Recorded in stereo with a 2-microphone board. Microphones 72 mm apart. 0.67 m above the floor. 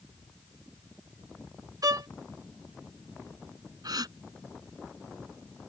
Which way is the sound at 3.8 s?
65° right (ahead or behind).